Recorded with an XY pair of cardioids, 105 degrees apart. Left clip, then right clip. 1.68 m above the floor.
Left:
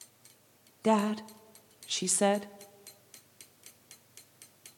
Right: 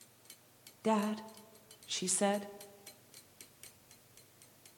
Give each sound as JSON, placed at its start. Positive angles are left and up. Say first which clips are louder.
{"t": 0.8, "sound": "a woman speaking", "louder": "left 6 dB", "azimuth_deg": 35, "distance_m": 0.5}